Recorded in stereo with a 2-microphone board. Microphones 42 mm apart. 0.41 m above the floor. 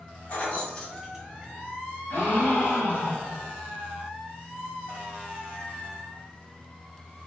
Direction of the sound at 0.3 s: 45° left (ahead or behind).